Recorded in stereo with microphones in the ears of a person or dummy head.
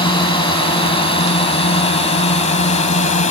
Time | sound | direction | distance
0.0 | a drone | 30° left (ahead or behind) | ?